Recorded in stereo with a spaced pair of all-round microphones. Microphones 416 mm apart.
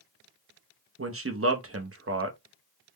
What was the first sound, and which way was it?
A man speaking, 35° right (ahead or behind).